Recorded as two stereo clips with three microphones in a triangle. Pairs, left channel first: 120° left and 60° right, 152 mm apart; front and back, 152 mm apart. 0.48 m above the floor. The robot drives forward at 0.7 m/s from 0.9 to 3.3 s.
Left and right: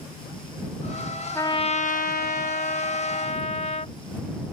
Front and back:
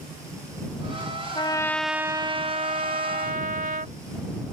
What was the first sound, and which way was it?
A trumpet, 50° left.